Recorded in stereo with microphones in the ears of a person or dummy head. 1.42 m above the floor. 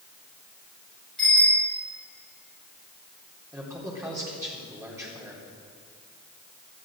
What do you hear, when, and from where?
1.2 s a bicycle bell: 5° left (ahead or behind), 6 m
3.5 s a man speaking: 15° right (ahead or behind), 3.5 m